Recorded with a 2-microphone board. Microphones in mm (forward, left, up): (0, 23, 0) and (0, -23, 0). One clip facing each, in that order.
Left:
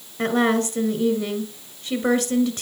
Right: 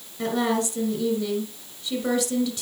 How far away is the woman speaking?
About 2 m.